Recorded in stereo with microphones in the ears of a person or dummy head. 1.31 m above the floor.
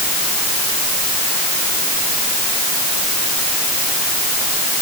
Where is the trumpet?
No trumpet in this recording.